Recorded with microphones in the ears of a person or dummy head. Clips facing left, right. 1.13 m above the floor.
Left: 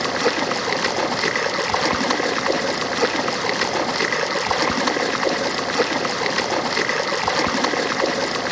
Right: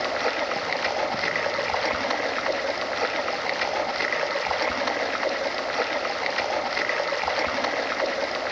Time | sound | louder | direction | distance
0.0 | running water | left 5 dB | 65° left (ahead or behind) | 0.7 m